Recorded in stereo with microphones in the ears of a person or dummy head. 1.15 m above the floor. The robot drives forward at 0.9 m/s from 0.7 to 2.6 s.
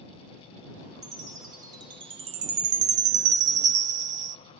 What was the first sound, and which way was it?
A chime, 20° right (ahead or behind).